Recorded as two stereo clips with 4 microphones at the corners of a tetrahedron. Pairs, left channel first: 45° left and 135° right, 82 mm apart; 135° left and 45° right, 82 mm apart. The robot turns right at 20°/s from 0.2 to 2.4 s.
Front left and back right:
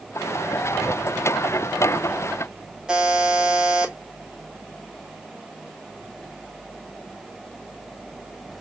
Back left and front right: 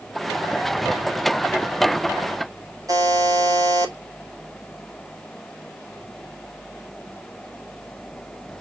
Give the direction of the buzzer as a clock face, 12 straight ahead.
2 o'clock.